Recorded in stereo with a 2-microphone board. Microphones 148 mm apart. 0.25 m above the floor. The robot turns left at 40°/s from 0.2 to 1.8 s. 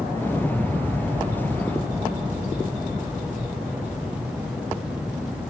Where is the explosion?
20° left; by 4.6 s 45° right.